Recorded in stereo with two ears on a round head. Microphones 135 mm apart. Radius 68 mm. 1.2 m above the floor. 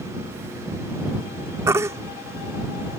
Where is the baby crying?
20° right (ahead or behind).